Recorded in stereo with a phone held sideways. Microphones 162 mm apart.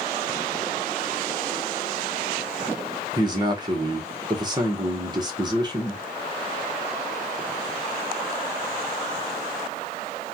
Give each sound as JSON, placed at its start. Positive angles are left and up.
{"t": 3.1, "sound": "a man speaking", "side_deg": -25, "distance_m": 0.9}